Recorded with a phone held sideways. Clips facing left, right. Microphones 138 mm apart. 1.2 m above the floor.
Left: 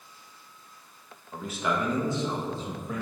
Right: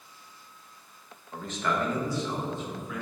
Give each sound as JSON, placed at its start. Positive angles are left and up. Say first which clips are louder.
{"t": 1.3, "sound": "a man speaking", "louder": "left 1 dB", "side_deg": 5, "distance_m": 1.8}